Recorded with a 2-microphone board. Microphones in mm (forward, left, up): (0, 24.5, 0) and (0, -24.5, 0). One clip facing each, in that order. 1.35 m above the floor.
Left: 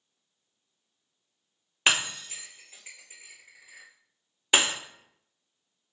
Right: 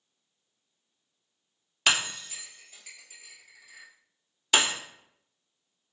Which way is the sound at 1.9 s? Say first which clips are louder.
Left 1 dB; 20° left (ahead or behind).